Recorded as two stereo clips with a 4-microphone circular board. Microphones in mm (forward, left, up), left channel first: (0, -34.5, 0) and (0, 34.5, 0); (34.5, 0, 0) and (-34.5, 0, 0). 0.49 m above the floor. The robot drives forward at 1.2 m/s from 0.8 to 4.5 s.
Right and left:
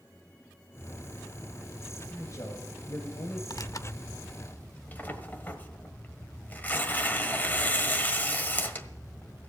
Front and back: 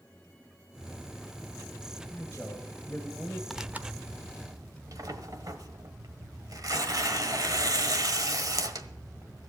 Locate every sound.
2.1 s a man speaking: 55° right, 2.5 m; by 3.4 s 95° right, 2 m
3.5 s tearing paper: 90° right, 0.7 m; by 9.5 s 155° right, 1.4 m